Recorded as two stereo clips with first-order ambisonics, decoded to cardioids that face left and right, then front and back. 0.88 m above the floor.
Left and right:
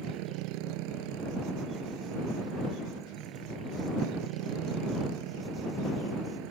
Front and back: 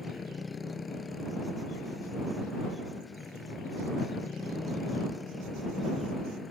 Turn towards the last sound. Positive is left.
turn(degrees=-75)